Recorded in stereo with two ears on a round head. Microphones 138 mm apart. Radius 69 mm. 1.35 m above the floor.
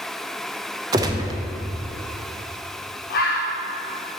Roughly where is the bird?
Left.